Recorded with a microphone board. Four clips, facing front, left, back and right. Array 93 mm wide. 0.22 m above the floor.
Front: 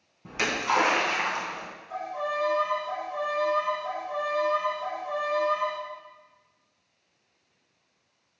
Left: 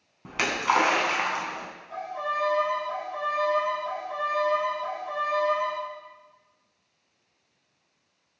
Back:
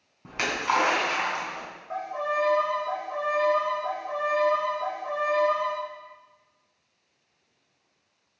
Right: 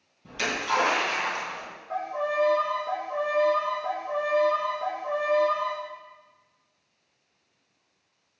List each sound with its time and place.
0.2 s a splash: 110° left, 2.5 m
1.9 s a violin: 140° right, 3 m